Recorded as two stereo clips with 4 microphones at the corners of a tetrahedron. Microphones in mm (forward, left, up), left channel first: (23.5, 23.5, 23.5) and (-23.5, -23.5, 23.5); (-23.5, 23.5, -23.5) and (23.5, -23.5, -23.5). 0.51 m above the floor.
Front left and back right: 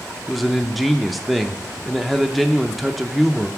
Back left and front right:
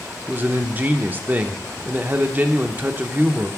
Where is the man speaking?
45° right, 0.8 m.